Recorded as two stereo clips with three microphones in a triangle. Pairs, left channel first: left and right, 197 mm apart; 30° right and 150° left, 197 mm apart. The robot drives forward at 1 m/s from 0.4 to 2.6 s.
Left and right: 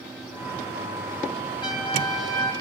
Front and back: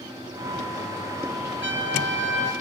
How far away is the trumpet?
About 7.5 m.